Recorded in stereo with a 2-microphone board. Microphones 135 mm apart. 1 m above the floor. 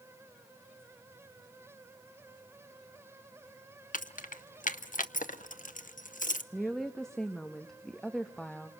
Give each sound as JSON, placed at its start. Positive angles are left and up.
{"t": 3.9, "sound": "keys jangling", "side_deg": 75, "distance_m": 0.7}
{"t": 6.5, "sound": "a woman speaking", "side_deg": 5, "distance_m": 1.2}